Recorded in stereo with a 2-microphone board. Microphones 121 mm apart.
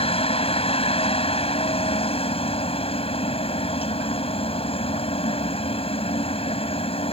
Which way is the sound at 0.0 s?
55° left (ahead or behind).